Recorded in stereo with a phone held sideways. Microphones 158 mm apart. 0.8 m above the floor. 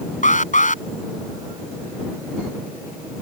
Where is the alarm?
55° left (ahead or behind).